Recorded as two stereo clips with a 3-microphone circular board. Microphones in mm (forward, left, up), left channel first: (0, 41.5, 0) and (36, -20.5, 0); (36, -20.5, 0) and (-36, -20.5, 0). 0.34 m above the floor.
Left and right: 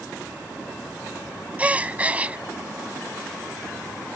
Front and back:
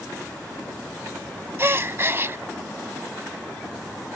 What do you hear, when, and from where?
1.6 s a gasp: 130° right